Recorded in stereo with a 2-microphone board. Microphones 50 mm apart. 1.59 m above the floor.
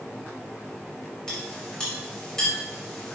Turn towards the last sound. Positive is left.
turn(degrees=15)  # may be behind; listen again after turning